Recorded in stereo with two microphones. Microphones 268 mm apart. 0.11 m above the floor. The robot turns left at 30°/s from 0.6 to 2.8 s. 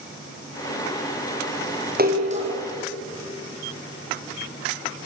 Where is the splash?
35° right (ahead or behind), 4.5 m; by 2.5 s 20° right (ahead or behind), 4.5 m.